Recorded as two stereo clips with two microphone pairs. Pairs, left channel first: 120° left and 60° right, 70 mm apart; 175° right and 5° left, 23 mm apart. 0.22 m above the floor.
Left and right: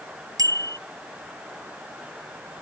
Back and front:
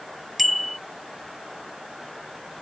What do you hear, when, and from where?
0.4 s a bicycle bell: 80° right